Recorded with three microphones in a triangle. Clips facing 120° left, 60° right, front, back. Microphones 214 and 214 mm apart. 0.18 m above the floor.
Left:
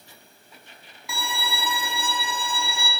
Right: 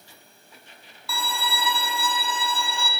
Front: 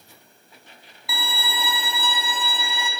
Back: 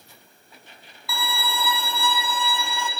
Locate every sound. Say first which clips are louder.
1.1 s a violin: right 1 dB, back 2 dB; 55° left, 0.9 m